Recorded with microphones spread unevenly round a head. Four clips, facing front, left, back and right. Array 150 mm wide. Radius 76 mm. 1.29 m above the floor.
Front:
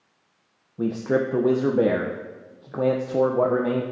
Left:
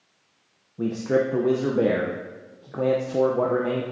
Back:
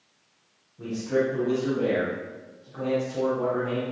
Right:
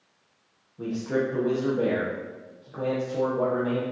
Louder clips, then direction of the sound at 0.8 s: Left 4 dB, front 3 dB; 30° left.